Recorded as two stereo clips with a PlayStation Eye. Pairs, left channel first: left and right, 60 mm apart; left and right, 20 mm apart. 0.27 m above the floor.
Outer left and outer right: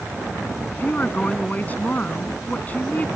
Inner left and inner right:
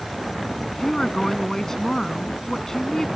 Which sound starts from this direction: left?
A woman speaking, at 0.7 s.